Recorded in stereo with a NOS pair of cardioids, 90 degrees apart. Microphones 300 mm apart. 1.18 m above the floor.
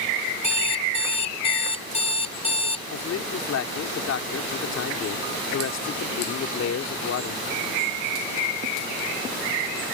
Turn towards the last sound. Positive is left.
turn(degrees=60)